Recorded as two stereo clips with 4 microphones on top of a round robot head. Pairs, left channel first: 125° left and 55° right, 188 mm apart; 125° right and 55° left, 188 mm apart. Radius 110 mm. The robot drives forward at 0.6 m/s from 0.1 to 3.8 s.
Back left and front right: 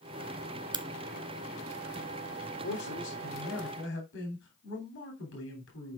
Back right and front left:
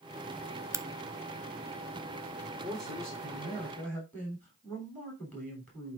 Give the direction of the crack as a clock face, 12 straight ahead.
12 o'clock.